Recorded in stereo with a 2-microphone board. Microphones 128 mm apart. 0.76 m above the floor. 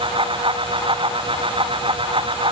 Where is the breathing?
I don't hear breathing.